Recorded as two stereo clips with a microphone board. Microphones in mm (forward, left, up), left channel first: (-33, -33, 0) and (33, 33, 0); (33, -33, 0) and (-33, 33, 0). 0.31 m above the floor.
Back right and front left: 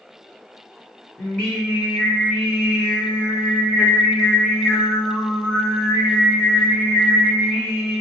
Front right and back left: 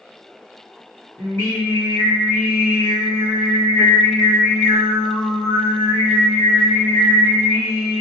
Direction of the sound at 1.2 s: 65° right.